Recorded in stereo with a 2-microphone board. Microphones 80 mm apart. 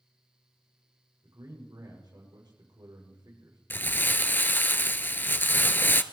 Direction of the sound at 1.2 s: 60° right (ahead or behind).